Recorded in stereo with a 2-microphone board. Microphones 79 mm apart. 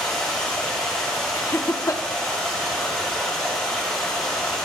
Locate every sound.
0.0 s running water: 5° left (ahead or behind), 5.5 m
1.3 s laughter: 40° left (ahead or behind), 0.6 m